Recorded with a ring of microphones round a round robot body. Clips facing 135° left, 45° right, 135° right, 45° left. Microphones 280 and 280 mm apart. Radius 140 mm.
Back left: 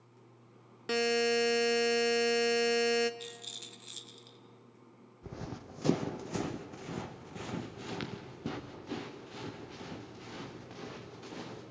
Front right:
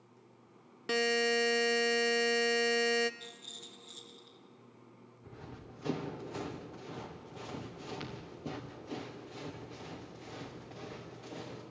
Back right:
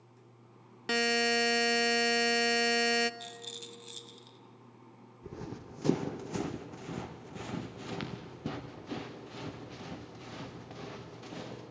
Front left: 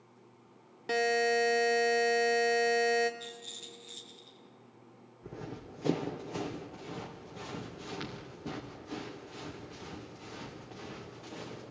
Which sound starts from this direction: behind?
A rattle, at 3.2 s.